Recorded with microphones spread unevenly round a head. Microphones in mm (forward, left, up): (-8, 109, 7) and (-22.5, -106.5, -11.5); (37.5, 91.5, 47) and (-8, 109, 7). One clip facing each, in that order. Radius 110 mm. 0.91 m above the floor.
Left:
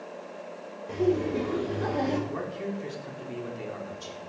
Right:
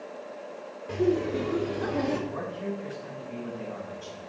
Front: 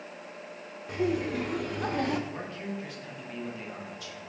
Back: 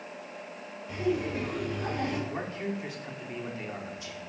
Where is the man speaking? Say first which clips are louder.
Even, back 3 dB; 115° left, 2.5 m.